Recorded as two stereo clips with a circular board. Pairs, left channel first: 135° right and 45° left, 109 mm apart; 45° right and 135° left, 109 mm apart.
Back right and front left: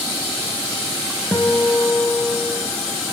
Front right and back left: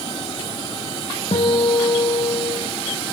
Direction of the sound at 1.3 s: 65° right.